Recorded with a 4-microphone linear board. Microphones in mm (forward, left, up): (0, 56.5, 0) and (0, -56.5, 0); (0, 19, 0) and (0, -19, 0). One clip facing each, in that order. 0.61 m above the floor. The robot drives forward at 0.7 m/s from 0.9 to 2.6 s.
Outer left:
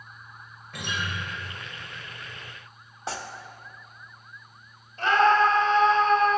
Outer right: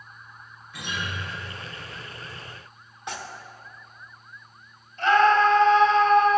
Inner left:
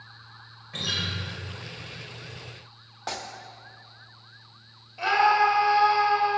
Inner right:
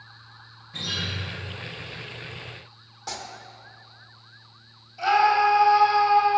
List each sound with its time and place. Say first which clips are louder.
0.7 s a guitar: outer left 1 dB, inner left 1 dB; 70° left (ahead or behind), 3 m
3.1 s tearing paper: outer left 2 dB, inner left 2 dB; 35° left (ahead or behind), 0.8 m
5.0 s a scream: outer right 2 dB, inner right 1 dB; 40° left (ahead or behind), 2.5 m